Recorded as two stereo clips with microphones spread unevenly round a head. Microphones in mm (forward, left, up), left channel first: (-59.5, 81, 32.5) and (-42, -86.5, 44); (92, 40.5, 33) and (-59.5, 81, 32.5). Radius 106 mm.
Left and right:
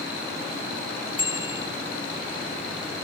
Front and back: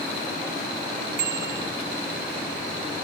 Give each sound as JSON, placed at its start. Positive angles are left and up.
{"t": 1.2, "sound": "a bicycle bell", "azimuth_deg": 155}